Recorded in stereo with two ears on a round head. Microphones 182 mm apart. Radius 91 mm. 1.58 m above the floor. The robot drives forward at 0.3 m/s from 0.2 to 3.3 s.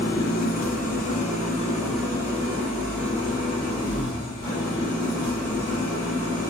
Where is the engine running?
50° left (ahead or behind), 0.8 m; by 6.5 s 25° left (ahead or behind), 1.6 m.